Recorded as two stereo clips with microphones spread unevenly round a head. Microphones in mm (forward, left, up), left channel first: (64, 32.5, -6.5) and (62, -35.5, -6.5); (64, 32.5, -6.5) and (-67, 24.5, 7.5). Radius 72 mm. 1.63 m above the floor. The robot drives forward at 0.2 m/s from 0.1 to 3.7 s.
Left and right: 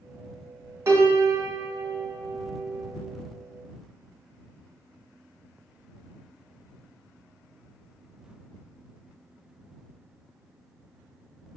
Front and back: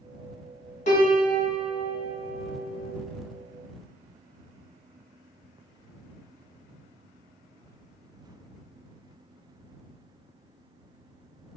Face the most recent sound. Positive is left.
turn(degrees=-75)